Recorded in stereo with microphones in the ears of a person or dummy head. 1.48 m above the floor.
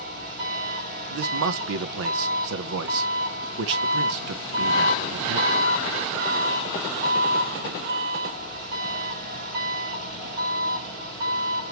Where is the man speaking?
55° right (ahead or behind), 0.7 m.